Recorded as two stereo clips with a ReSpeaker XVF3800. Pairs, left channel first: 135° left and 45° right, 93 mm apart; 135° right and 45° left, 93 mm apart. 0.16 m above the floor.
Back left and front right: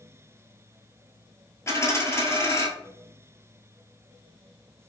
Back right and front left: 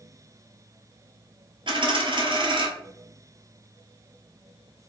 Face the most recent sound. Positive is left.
turn(degrees=75)